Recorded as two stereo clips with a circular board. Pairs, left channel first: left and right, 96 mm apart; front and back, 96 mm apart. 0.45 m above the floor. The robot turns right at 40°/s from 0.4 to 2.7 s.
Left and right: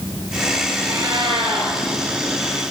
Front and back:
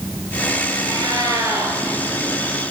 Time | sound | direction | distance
0.8 | a cat meowing | 145° right | 4 m